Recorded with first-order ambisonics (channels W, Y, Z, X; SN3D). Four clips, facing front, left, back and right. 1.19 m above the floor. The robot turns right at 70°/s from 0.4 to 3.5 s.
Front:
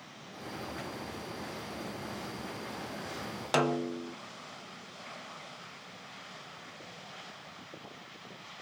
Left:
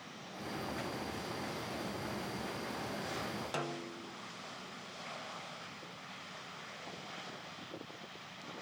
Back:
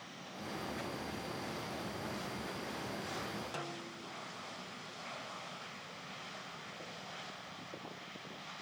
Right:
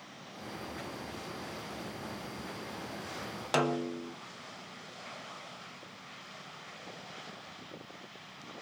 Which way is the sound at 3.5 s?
35° right.